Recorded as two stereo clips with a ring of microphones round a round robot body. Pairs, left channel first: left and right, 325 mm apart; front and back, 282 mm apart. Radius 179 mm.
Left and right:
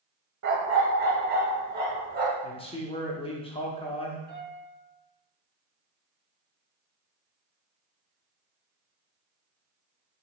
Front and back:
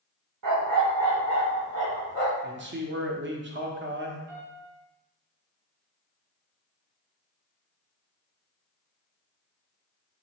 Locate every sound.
0.4 s a dog barking: 145° right, 0.6 m; by 2.3 s 155° right, 1.7 m
2.4 s a man speaking: 155° left, 0.8 m
4.3 s a piano: 165° right, 1.9 m